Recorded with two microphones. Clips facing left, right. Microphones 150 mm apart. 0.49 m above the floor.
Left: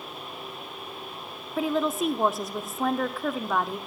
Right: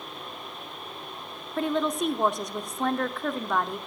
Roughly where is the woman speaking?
Centre.